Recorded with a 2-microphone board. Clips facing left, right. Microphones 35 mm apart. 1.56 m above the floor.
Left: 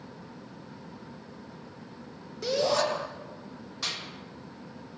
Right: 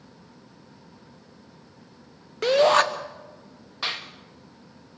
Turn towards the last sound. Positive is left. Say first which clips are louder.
# right 5 dB
turn(degrees=-30)  # may be behind; listen again after turning